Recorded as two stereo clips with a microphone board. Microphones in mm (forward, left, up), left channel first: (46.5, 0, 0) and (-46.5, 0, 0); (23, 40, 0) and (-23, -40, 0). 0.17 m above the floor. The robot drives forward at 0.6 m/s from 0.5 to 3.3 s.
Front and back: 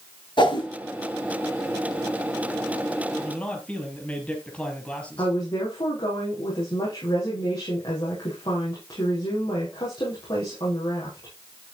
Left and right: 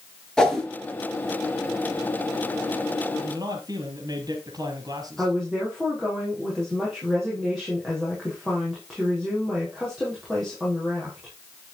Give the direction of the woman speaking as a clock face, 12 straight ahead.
1 o'clock.